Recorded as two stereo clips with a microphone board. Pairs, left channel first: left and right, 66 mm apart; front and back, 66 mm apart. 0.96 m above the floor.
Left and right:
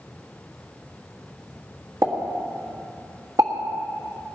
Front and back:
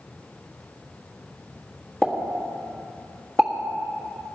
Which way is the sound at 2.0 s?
75° right.